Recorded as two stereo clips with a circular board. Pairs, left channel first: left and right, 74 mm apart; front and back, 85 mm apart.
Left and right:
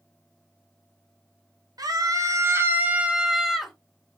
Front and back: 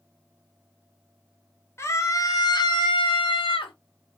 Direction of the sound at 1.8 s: 60° right.